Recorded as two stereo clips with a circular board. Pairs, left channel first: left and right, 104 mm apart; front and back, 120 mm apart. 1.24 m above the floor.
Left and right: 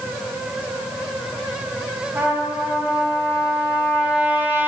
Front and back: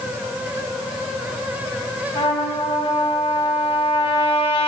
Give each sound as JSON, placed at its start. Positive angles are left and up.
{"t": 2.1, "sound": "a trumpet", "azimuth_deg": -25, "distance_m": 1.8}